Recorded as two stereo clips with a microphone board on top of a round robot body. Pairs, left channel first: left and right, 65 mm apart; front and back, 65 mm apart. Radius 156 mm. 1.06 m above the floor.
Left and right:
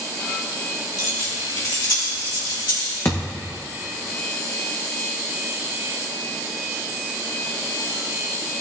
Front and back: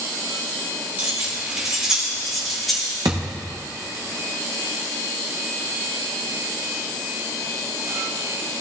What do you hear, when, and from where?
1.0 s keys jangling: 115° left, 2 m; by 3.0 s 85° left, 2.5 m
3.0 s a thud: 150° left, 0.6 m